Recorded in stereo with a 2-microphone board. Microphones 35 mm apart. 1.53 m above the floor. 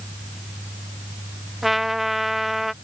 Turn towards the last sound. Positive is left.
turn(degrees=-5)  # may be behind; listen again after turning